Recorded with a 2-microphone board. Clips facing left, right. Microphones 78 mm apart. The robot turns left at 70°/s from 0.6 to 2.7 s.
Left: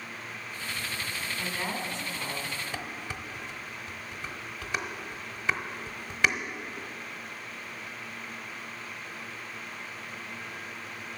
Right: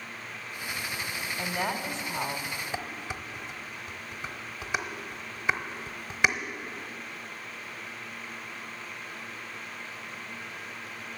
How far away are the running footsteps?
No running footsteps in this recording.